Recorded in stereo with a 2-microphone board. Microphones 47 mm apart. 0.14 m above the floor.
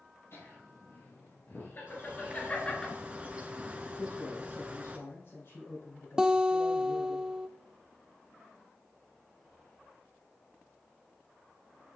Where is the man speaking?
55° left (ahead or behind), 5 m.